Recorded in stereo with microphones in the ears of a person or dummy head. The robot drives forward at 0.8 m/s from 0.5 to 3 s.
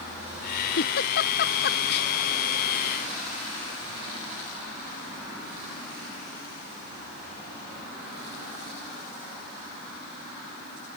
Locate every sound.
0.8 s a giggle: 60° left (ahead or behind); by 2.1 s 70° left (ahead or behind)